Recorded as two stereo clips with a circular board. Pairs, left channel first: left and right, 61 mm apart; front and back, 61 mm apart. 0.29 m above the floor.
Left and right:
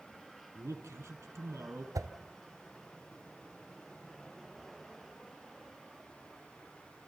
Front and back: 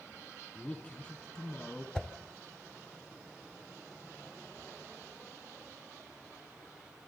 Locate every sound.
0.6 s a man speaking: 60° right, 2.5 m
1.9 s a whoosh: 75° right, 0.8 m